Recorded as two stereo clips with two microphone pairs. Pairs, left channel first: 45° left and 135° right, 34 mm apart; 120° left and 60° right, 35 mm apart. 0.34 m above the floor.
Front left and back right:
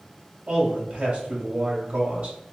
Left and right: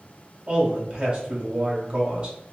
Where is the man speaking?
85° right, 1.3 m.